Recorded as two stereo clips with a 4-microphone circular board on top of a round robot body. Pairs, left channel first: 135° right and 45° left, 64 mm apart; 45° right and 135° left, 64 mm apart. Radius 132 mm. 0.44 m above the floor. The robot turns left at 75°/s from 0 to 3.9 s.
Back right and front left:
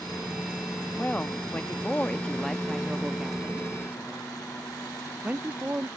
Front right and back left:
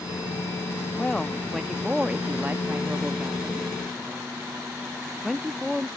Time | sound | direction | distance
1.0 | a woman speaking | 95° right | ?